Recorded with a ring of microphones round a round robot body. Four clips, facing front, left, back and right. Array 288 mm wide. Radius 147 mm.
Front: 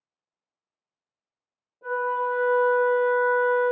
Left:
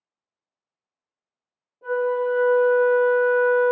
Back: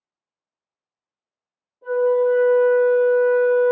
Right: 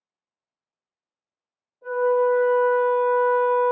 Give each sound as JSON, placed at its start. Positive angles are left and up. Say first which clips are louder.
{"t": 1.8, "sound": "a flute", "louder": "right 3 dB, back 8 dB", "azimuth_deg": 40, "distance_m": 1.6}